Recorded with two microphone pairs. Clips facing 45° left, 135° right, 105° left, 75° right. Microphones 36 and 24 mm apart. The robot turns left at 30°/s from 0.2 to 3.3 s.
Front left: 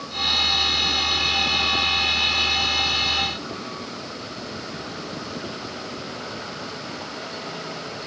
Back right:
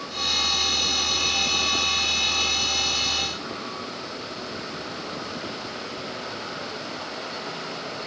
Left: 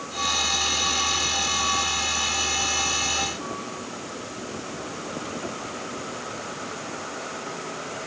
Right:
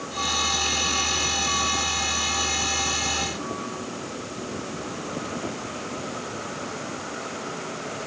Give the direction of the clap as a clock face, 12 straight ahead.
No clap in this recording.